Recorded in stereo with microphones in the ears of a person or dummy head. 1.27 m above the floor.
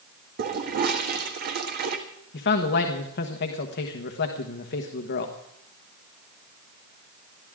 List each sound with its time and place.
0.4 s a toilet flushing: 50° right (ahead or behind), 1.6 m
2.3 s a man speaking: 50° left (ahead or behind), 1.3 m